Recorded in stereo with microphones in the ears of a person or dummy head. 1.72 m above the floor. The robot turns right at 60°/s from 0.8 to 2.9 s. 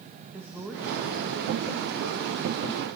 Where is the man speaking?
165° right, 2 m; by 2.9 s 40° right, 2 m.